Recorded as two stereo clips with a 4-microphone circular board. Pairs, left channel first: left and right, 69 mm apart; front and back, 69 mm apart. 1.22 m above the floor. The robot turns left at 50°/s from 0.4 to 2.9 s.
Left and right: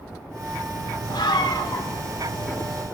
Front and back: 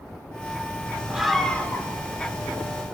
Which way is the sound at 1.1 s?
100° left.